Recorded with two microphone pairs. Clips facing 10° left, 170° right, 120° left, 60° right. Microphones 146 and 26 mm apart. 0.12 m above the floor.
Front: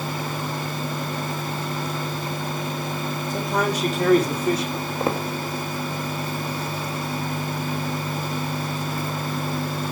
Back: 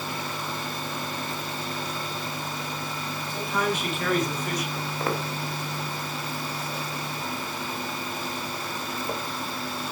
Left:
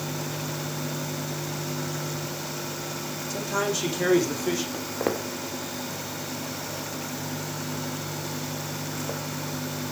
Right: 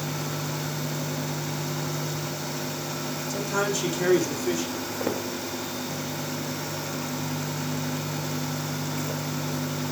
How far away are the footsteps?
About 3 m.